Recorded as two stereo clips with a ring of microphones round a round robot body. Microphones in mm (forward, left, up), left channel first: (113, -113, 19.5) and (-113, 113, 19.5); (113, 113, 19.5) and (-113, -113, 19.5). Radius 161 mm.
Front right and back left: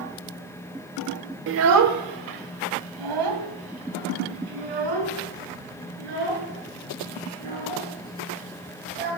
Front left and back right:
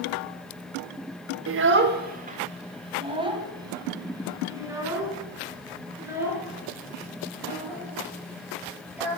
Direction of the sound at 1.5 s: 175° right.